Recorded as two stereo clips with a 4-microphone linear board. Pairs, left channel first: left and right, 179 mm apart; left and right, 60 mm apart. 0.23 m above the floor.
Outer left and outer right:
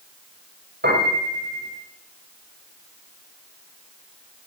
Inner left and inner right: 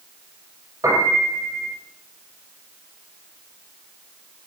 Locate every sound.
0.8 s a piano: 65° right (ahead or behind), 6.5 m